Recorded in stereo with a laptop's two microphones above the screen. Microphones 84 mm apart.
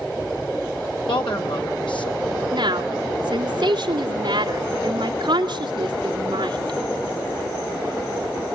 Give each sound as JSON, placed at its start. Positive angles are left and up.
{"t": 1.1, "sound": "a woman speaking", "side_deg": 70, "distance_m": 4.5}
{"t": 2.5, "sound": "a woman speaking", "side_deg": -60, "distance_m": 2.5}